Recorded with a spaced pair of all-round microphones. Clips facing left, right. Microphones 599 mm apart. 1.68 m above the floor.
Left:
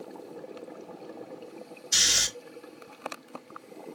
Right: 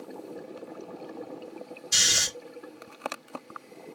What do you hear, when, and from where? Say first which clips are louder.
1.9 s snoring: even; 30° right (ahead or behind), 1.8 m